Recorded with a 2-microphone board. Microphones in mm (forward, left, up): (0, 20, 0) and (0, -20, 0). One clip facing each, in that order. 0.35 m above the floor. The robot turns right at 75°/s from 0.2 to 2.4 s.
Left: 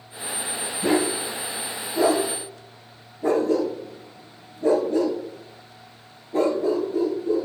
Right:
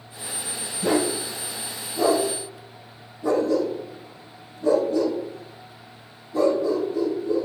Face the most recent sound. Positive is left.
turn(degrees=50)  # may be behind; listen again after turning